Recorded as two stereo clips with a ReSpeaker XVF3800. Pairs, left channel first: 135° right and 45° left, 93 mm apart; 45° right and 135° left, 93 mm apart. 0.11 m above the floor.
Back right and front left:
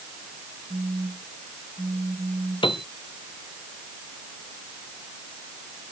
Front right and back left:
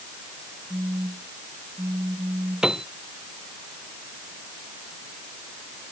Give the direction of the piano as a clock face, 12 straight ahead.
5 o'clock.